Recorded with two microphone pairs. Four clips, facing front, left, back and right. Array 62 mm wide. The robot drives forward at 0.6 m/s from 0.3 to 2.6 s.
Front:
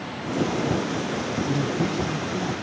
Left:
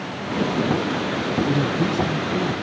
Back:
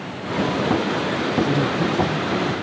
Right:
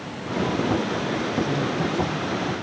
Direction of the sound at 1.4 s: 70° left.